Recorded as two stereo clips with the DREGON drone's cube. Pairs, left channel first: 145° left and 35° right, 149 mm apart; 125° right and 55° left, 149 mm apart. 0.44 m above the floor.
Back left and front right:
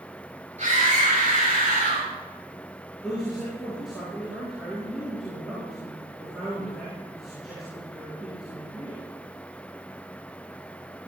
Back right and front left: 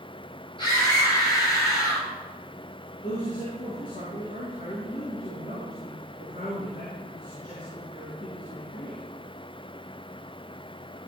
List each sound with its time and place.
0.6 s a scream: 70° right, 6 m; by 2.1 s 60° right, 6 m
3.0 s a man speaking: 120° right, 4.5 m